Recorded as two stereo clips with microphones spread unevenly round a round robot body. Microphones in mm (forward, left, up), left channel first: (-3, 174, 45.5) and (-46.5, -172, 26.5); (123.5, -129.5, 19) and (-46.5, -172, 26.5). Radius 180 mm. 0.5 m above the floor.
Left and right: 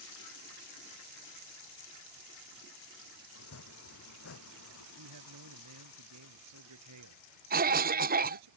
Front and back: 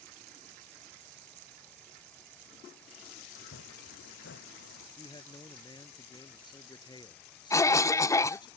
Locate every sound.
3.4 s chopping: 30° left
5.0 s a man speaking: 50° right
7.5 s a cough: 50° right